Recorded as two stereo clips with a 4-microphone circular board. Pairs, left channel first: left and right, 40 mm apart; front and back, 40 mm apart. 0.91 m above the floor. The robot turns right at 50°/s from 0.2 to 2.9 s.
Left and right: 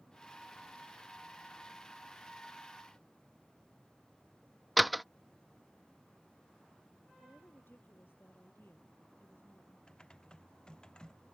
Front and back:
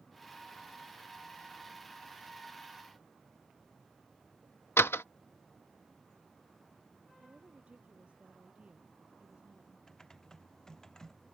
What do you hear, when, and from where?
4.8 s a door slam: straight ahead
7.2 s a woman speaking: 125° left
9.9 s typing on a keyboard: 55° left